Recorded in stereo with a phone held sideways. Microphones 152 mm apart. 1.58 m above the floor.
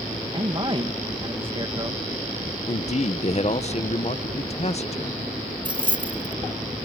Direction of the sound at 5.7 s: 30° right (ahead or behind).